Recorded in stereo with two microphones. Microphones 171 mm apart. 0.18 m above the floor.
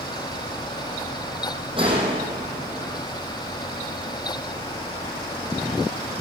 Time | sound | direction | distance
1.8 | a gunshot | 30° right (ahead or behind) | 4.5 m